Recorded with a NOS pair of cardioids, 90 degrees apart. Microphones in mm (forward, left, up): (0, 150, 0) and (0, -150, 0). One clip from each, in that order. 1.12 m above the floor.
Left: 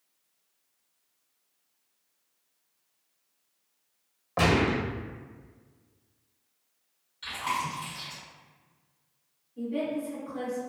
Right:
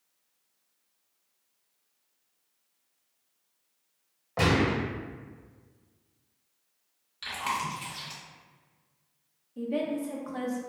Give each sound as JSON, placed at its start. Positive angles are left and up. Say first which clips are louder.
{"t": 4.4, "sound": "a gunshot", "louder": "left 1 dB", "azimuth_deg": 15, "distance_m": 1.1}
{"t": 7.2, "sound": "chewing", "louder": "even", "azimuth_deg": -55, "distance_m": 1.2}
{"t": 9.6, "sound": "a woman speaking", "louder": "right 1 dB", "azimuth_deg": -60, "distance_m": 1.0}